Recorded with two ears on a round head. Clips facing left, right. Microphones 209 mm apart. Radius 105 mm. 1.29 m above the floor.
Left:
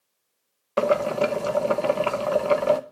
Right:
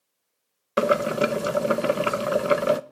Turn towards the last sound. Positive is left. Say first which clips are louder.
# even
turn(degrees=-20)  # may be behind; listen again after turning